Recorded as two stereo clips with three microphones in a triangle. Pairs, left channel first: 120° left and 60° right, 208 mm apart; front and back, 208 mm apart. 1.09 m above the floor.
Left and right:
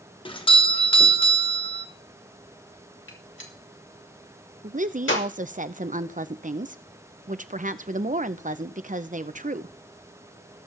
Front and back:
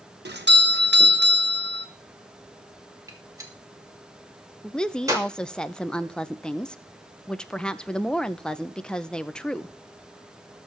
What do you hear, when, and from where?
0.2 s a doorbell: straight behind, 1.3 m
3.1 s a gunshot: 105° left, 2.5 m
4.6 s a woman speaking: 85° right, 0.7 m